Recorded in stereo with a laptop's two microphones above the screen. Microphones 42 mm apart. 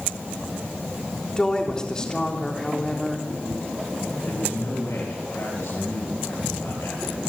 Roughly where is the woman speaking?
Centre.